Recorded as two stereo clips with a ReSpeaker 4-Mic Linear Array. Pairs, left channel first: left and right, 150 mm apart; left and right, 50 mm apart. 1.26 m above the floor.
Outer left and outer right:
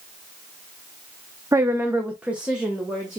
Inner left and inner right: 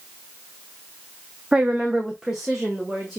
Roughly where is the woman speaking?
Right.